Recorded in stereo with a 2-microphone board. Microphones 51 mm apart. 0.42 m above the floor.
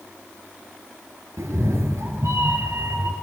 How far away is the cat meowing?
About 1.2 m.